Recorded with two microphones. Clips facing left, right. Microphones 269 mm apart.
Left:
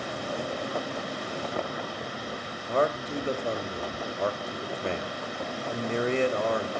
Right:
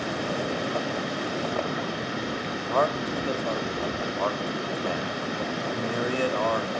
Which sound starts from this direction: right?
Running water, at 0.0 s.